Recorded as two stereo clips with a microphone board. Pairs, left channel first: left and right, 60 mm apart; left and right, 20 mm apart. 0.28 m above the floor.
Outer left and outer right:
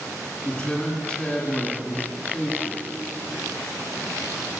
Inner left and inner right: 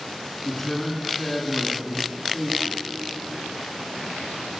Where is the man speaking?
15° left (ahead or behind), 2.5 m.